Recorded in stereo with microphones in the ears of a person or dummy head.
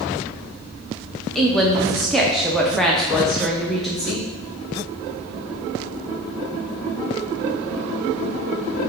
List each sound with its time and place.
1.4 s a woman speaking: 5° left (ahead or behind), 0.5 m